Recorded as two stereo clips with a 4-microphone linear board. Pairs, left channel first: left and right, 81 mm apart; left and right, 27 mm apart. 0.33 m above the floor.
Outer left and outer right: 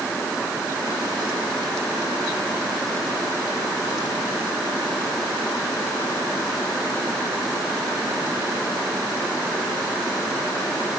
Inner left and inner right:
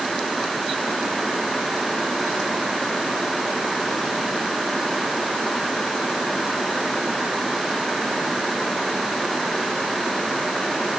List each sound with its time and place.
Only background noise.